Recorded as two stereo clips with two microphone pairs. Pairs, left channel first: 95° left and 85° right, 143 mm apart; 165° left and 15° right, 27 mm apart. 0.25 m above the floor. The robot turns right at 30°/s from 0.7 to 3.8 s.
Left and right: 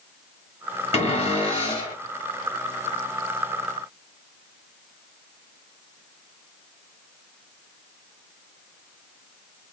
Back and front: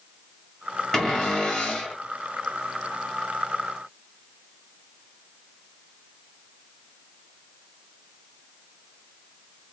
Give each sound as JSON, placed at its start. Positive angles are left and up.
{"t": 0.9, "sound": "a cupboard door", "azimuth_deg": 110, "distance_m": 2.0}